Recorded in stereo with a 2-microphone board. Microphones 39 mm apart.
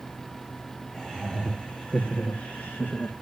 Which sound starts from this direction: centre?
Laughter, at 0.9 s.